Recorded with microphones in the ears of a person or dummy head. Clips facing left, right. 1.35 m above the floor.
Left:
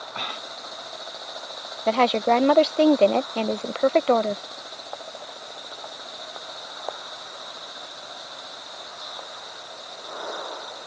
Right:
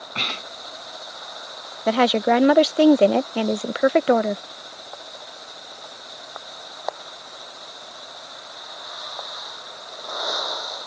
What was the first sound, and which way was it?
Breathing, 30° right (ahead or behind).